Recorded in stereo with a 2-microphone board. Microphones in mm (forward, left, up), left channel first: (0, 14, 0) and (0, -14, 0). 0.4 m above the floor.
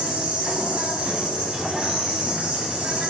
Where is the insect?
45° right (ahead or behind), 1.2 m.